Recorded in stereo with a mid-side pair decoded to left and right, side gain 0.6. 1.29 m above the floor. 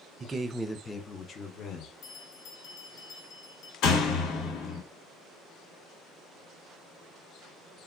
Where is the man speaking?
35° right, 0.6 m; by 1.9 s 50° left, 1.1 m.